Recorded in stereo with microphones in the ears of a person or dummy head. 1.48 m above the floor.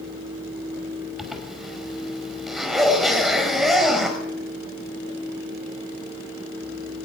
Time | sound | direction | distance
1.2 | a zipper | 5° right (ahead or behind) | 5.5 m